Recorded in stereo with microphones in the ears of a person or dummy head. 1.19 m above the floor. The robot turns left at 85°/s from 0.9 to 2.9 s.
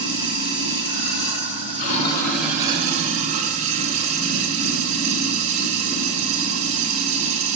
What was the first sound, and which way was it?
Running water, 125° left.